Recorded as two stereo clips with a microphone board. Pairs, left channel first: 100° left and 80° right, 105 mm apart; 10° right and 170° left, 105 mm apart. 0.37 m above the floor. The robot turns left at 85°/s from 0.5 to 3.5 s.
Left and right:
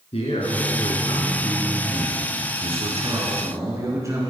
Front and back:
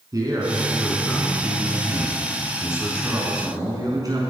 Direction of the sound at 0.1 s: 115° left.